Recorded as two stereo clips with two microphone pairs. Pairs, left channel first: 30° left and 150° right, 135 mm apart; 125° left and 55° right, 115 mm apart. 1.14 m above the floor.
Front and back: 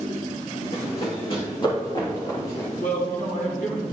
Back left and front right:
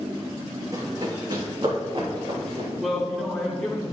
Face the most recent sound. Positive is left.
turn(degrees=35)